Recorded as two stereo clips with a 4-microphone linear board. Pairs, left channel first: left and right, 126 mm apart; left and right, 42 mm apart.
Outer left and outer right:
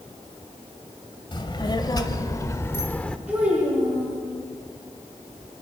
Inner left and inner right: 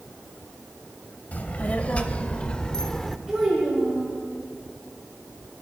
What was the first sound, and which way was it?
A child speaking, 35° left (ahead or behind).